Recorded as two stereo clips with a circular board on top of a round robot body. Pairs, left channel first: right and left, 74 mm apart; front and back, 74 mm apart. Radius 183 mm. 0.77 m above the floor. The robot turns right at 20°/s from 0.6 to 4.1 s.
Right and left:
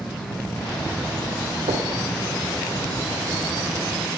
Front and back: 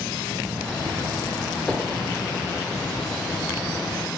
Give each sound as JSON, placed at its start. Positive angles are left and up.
{"t": 1.7, "sound": "knocking", "azimuth_deg": 85, "distance_m": 2.5}